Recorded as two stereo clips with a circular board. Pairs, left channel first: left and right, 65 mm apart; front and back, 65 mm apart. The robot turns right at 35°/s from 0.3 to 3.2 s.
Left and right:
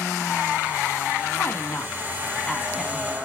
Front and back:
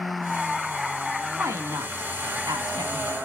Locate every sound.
1.3 s a woman speaking: 130° left, 2 m; by 3.1 s 165° right, 2 m